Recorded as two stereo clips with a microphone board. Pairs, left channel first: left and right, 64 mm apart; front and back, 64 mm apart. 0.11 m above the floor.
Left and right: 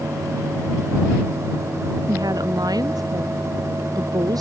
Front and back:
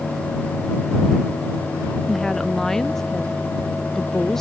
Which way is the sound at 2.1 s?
85° right.